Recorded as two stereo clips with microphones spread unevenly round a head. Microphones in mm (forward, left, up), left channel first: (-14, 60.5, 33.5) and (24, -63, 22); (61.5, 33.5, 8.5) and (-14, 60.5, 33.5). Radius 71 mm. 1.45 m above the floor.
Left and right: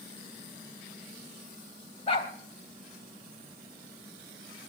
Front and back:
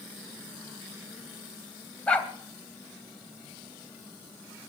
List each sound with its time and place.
2.1 s a dog barking: 65° left, 2 m